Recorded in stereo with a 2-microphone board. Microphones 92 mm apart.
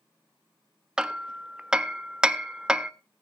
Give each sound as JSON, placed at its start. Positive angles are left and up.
{"t": 1.0, "sound": "hammering", "side_deg": -5, "distance_m": 0.6}